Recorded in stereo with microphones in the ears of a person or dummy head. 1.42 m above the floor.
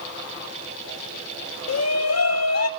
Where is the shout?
75° left (ahead or behind), 1.4 m.